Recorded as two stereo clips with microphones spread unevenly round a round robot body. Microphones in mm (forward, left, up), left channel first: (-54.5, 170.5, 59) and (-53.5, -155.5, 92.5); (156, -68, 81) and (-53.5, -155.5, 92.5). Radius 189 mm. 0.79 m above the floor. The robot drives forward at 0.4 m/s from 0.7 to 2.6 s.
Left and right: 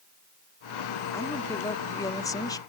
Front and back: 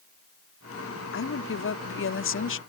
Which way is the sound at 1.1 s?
10° left.